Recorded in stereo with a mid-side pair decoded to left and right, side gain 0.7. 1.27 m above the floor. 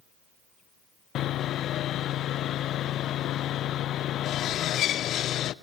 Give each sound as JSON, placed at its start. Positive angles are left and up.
{"t": 1.1, "sound": "sawing", "azimuth_deg": 50, "distance_m": 0.6}